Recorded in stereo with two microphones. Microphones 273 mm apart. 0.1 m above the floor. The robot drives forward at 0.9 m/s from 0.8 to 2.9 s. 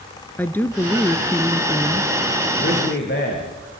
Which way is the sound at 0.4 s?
5° left (ahead or behind).